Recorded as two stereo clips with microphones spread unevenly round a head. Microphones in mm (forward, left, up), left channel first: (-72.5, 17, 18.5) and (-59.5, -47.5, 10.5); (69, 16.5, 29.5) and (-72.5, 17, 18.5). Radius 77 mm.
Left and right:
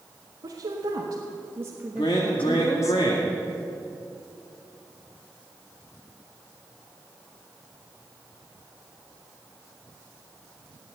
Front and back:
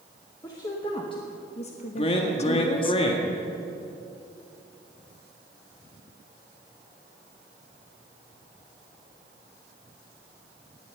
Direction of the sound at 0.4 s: 70° right.